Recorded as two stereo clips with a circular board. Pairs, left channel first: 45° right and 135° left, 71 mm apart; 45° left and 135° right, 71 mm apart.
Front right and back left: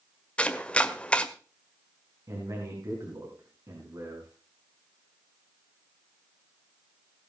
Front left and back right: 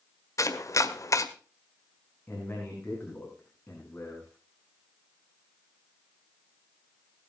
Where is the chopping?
25° left, 1.5 m.